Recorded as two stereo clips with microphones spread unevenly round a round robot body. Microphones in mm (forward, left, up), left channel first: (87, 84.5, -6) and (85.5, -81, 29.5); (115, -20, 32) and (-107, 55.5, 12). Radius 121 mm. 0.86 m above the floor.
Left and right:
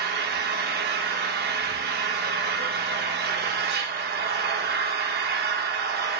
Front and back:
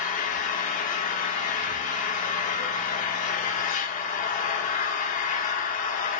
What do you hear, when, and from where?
0.0 s an engine running: 75° right, 0.7 m